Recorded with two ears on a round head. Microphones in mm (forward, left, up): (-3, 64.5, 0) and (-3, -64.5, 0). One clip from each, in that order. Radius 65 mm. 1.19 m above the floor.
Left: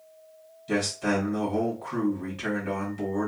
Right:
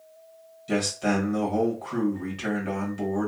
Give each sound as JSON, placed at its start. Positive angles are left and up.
{"t": 0.7, "sound": "a man speaking", "side_deg": -15, "distance_m": 1.5}